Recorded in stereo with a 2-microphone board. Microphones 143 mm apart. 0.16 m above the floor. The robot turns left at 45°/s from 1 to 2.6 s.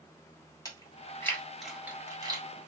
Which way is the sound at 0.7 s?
25° left (ahead or behind).